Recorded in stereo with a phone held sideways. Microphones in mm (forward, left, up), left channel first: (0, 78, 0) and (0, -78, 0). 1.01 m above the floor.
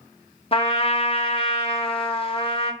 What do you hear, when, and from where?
0.5 s a trumpet: 40° left (ahead or behind), 0.7 m